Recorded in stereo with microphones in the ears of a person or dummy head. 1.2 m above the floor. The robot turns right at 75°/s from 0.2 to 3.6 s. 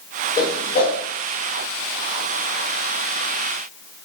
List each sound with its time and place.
0.4 s a whoosh: 20° left (ahead or behind), 2.5 m; by 1.0 s 65° left (ahead or behind), 2.5 m